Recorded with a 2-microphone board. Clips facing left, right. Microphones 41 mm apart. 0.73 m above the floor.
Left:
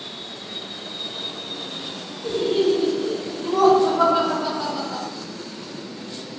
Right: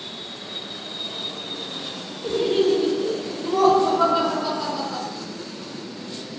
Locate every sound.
2.2 s laughter: 30° right (ahead or behind), 0.7 m; by 5.0 s 20° left (ahead or behind), 1.3 m